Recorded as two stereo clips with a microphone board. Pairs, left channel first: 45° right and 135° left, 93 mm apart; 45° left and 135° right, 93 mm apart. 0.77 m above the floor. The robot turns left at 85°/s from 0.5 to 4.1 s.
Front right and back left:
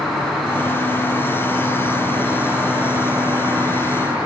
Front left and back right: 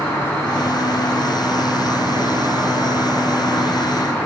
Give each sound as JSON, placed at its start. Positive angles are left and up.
{"t": 0.0, "sound": "an insect", "azimuth_deg": 40, "distance_m": 0.7}